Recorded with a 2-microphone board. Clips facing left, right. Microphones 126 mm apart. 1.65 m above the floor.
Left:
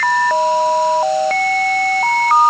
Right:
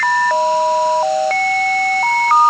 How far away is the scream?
No scream in this recording.